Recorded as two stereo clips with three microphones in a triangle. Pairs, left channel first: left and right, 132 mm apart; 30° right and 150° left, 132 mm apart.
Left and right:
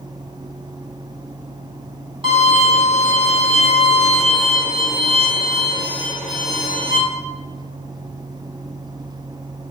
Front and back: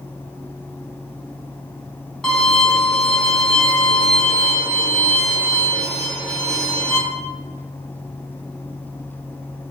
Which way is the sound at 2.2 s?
115° right.